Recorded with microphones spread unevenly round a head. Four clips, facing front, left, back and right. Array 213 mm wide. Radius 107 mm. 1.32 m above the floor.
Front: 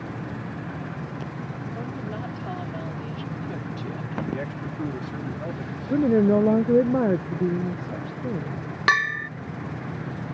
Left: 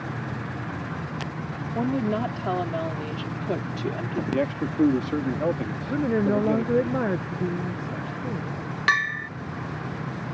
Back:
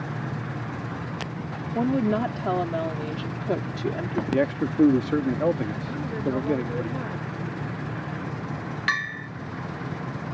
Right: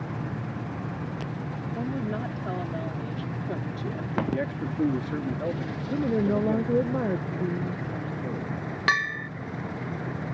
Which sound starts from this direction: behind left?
A woman speaking, at 1.8 s.